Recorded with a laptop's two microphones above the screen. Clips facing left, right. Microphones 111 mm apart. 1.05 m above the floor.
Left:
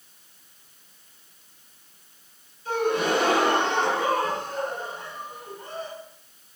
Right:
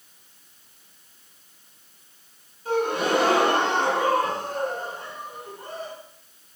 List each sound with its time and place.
2.6 s a gasp: 40° right (ahead or behind), 1.7 m